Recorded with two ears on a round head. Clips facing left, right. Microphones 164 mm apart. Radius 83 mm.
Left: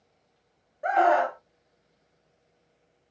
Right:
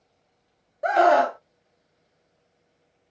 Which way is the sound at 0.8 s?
50° right (ahead or behind).